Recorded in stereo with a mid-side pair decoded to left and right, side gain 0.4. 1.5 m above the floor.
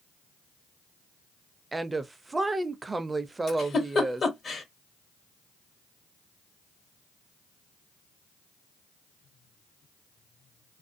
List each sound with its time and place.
1.7 s a woman speaking: 25° right, 0.5 m
3.5 s a giggle: 50° left, 1.3 m